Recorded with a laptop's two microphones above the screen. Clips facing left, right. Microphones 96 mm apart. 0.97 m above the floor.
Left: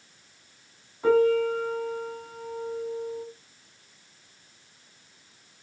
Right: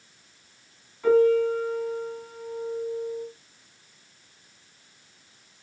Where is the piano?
30° left (ahead or behind), 4.5 m.